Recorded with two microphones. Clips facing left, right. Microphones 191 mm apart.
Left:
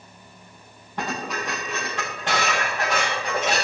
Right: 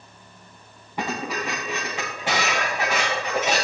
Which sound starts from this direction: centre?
Dishes clattering, at 1.0 s.